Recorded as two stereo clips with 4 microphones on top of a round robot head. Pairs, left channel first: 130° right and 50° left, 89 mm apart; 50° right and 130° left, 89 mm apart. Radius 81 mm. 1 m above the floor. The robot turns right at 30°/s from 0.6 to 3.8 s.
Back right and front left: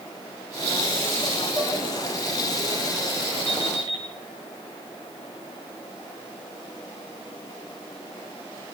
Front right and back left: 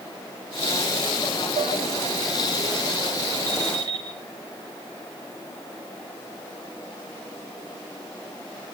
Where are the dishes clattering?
145° left, 2.0 m; by 1.7 s 150° left, 2.0 m.